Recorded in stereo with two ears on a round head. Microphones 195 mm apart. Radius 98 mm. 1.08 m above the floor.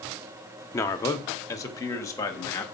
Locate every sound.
0.7 s a man speaking: 15° left (ahead or behind), 0.7 m